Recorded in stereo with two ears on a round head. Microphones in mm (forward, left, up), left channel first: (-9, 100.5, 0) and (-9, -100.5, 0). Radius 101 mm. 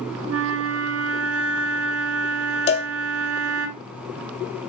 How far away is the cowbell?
About 1.3 m.